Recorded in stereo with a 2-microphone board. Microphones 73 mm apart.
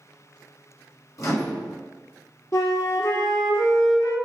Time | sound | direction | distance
1.2 | a microwave | 50° left (ahead or behind) | 1.3 m
2.5 | a flute | 55° left (ahead or behind) | 1.2 m